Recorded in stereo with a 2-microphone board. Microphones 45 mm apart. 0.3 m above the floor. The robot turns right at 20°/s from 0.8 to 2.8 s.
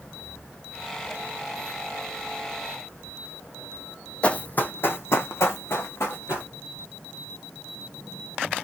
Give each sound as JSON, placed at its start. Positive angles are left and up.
{"t": 4.2, "sound": "running footsteps", "side_deg": 25, "distance_m": 0.6}